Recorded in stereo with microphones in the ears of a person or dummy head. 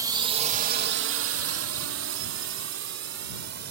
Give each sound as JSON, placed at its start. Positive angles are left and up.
{"t": 0.0, "sound": "a drone", "side_deg": -20}